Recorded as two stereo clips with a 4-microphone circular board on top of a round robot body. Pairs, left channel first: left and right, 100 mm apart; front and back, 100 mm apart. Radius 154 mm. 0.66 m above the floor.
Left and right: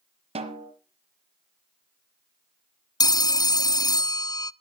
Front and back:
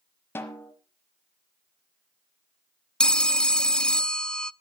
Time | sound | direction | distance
0.3 | a snare drum | 70° right | 1.1 m
3.0 | a phone ringing | 75° left | 0.5 m